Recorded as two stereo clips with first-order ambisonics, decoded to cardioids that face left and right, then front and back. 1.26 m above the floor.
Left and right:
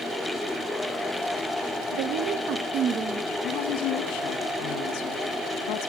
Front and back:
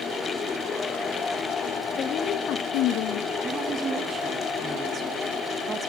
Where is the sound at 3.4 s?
115° left, 1.7 m.